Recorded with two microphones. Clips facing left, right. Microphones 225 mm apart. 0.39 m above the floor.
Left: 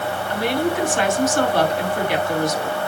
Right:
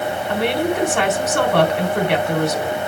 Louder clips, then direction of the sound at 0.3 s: Right 1 dB; 65° right (ahead or behind).